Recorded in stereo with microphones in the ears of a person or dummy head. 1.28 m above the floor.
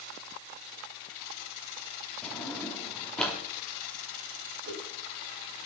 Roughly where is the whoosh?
Right.